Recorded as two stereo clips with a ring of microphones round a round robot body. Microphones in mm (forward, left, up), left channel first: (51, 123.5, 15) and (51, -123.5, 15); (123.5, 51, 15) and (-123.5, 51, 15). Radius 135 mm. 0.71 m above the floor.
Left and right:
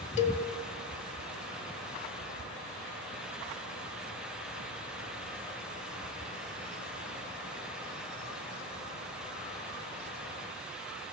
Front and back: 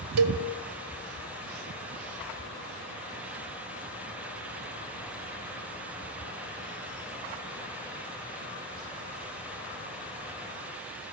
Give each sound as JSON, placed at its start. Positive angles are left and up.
{"t": 0.2, "sound": "a cowbell", "azimuth_deg": 155, "distance_m": 1.6}